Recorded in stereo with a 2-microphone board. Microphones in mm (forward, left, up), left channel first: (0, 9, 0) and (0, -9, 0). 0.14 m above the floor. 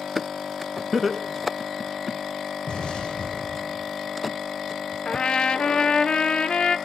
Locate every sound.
0.9 s laughter: centre (ahead or behind), 1.0 m
2.7 s an explosion: 65° left (ahead or behind), 3.5 m
5.0 s a trumpet: 70° left (ahead or behind), 0.5 m